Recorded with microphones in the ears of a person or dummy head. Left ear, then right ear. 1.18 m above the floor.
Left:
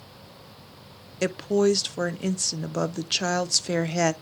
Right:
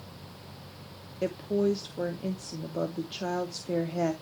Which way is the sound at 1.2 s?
55° left (ahead or behind).